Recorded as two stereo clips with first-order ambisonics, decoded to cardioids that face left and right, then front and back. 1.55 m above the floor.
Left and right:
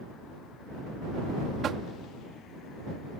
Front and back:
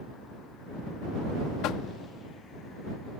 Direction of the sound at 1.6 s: 30° right.